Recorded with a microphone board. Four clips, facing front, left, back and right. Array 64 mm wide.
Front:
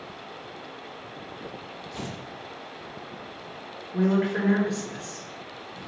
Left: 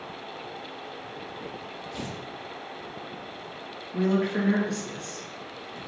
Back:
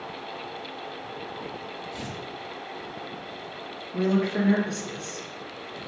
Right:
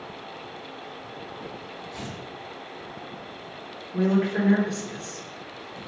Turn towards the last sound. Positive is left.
turn(degrees=-10)